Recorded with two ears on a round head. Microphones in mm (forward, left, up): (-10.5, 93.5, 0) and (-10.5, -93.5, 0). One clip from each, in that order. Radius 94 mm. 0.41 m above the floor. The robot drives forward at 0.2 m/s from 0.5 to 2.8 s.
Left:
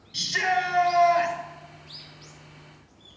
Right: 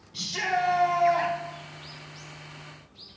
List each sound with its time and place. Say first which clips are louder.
0.1 s a shout: left 3 dB; 50° left (ahead or behind), 2 m